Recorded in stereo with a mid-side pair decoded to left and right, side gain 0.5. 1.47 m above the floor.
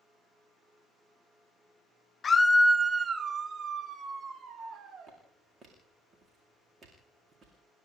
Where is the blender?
No blender in this recording.